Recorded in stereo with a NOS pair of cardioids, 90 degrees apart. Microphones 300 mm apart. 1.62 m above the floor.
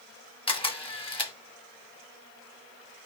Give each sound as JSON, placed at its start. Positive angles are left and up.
{"t": 0.5, "sound": "a camera shutter", "azimuth_deg": 15, "distance_m": 1.3}